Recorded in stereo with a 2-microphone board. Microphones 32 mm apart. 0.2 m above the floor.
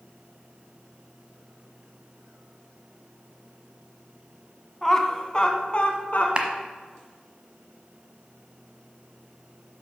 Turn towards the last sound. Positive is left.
turn(degrees=-35)  # may be behind; listen again after turning